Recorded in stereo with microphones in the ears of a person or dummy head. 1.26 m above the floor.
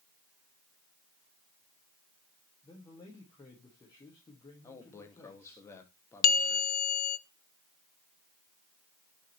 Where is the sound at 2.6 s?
20° left (ahead or behind), 1.7 m.